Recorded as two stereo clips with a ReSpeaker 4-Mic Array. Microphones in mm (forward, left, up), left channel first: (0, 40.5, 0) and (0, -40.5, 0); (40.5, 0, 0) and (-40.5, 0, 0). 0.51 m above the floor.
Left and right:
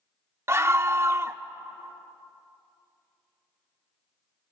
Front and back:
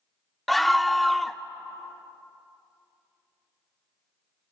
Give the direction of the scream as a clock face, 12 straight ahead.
3 o'clock.